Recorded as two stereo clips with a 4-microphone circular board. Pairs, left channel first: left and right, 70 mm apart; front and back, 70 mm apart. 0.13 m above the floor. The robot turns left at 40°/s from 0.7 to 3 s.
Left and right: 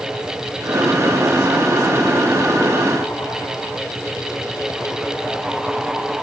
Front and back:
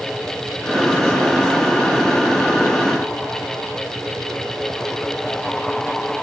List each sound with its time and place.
Only background noise.